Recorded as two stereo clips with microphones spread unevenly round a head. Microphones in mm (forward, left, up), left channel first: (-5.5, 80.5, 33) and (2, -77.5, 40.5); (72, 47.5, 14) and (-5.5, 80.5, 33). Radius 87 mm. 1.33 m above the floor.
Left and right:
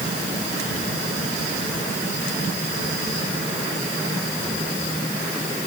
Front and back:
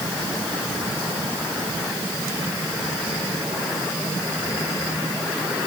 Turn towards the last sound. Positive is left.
No sound to turn to.